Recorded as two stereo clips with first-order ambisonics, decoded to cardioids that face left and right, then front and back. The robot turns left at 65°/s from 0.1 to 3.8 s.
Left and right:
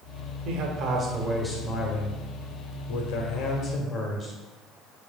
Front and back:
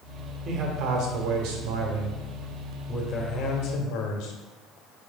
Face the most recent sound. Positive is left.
turn(degrees=20)